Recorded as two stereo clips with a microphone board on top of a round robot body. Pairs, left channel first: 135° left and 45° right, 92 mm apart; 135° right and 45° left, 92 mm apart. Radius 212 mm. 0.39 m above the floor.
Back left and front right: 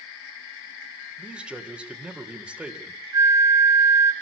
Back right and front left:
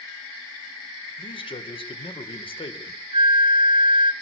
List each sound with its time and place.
1.2 s a man speaking: 125° right, 2.5 m
3.1 s a flute: 10° left, 0.9 m